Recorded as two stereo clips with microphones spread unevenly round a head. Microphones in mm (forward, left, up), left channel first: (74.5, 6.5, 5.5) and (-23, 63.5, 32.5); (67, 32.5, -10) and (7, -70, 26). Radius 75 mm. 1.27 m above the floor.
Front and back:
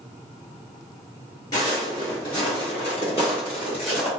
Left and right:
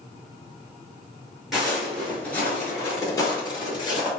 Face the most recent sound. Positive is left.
turn(degrees=5)